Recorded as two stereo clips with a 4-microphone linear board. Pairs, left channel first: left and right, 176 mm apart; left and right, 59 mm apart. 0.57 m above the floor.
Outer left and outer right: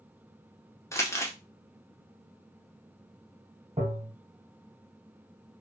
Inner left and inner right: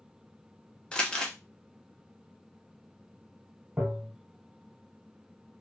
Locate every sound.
0.9 s crumpling: 15° left (ahead or behind), 0.7 m
3.8 s tapping: 35° right (ahead or behind), 1.1 m